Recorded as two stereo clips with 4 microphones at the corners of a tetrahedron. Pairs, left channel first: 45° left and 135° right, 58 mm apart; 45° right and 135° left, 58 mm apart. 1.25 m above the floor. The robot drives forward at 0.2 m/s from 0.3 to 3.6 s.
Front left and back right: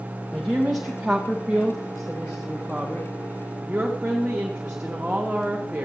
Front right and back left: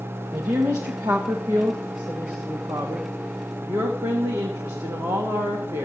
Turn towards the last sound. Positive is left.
turn(degrees=150)